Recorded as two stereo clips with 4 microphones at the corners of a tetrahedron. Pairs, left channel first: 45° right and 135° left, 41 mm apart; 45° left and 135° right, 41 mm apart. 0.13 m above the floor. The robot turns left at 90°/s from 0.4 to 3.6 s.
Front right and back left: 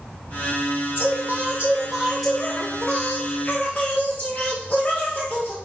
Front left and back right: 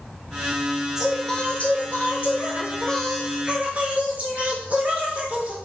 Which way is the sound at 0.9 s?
155° left.